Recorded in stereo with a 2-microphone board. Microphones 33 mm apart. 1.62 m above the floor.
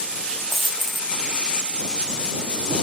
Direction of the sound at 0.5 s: 10° left (ahead or behind).